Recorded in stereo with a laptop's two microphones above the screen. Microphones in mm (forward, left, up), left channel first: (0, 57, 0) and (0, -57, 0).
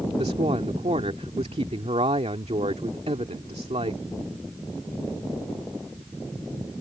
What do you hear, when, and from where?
0.2 s a woman speaking: 65° right (ahead or behind)